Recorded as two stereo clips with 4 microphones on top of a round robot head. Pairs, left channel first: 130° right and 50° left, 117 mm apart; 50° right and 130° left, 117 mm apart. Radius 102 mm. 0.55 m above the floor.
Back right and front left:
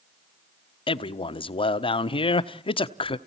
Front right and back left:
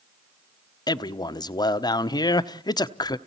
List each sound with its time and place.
0.9 s a man speaking: 100° right, 1.0 m